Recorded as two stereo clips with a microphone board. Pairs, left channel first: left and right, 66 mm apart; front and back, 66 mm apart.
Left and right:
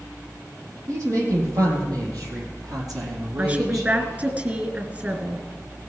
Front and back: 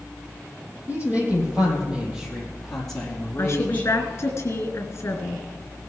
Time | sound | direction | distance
0.9 | a woman speaking | 120° right | 5.5 m
3.4 | a woman speaking | 35° right | 2.5 m